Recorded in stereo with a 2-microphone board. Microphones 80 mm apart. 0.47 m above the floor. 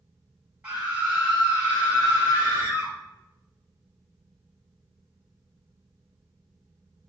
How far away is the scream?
About 1.3 m.